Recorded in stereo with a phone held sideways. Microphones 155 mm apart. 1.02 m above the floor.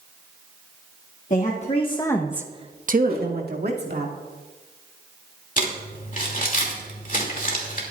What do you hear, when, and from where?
1.3 s a woman speaking: 50° left (ahead or behind), 1.8 m; by 4.1 s 80° right, 2.5 m
3.1 s a whoosh: 65° right (ahead or behind), 3.5 m
5.6 s crumpling: 55° left (ahead or behind), 2.5 m